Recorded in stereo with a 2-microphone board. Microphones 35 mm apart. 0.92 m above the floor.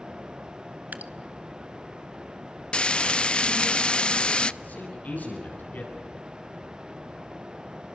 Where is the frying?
30° left (ahead or behind), 0.5 m.